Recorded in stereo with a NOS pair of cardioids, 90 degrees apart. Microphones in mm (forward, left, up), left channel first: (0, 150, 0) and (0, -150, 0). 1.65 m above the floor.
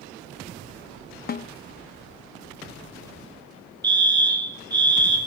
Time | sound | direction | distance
1.3 | a snare drum | 30° left | 0.7 m
3.8 | a fire alarm | 15° right | 2.5 m